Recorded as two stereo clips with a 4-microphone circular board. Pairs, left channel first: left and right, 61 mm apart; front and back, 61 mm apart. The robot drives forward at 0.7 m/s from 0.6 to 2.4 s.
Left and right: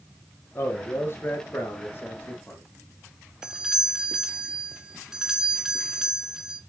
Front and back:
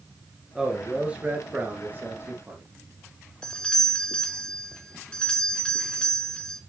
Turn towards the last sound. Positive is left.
turn(degrees=-35)